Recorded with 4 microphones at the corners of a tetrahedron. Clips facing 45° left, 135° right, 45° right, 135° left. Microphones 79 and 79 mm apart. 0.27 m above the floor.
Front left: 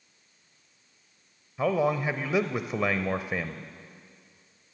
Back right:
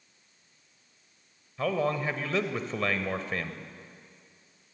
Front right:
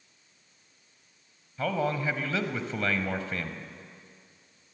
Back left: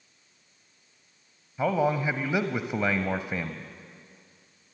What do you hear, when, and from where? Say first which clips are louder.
1.6 s a man speaking: front left 3 dB, back left 4 dB; 100° left, 0.9 m